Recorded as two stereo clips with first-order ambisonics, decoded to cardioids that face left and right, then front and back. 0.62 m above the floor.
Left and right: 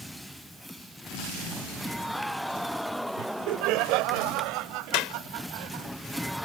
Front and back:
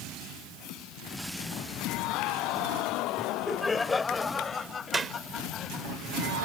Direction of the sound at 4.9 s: 105° left.